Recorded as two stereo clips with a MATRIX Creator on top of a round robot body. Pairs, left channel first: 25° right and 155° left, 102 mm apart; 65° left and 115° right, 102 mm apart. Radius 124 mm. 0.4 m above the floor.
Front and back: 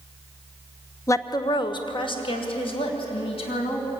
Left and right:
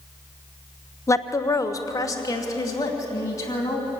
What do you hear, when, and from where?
1.1 s a woman speaking: 20° left, 1.0 m; by 3.9 s 10° left, 4 m